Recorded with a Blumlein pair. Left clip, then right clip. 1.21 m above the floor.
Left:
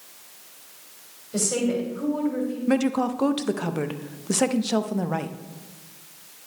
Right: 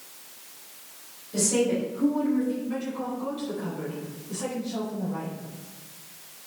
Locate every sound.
1.3 s a woman speaking: 20° left, 3 m
2.7 s a woman speaking: 40° left, 0.6 m